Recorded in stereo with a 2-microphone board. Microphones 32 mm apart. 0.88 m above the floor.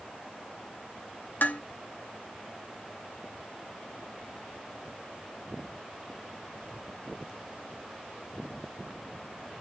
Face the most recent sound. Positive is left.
turn(degrees=70)  # may be behind; listen again after turning